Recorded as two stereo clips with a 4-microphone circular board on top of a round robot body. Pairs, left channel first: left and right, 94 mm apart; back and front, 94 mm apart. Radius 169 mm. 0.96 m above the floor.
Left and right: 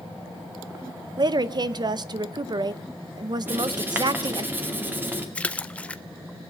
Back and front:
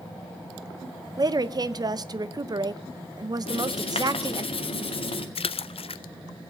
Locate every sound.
1.2 s a woman speaking: 45° right, 0.9 m
3.5 s writing: 160° right, 2 m
5.3 s a splash: 165° left, 0.6 m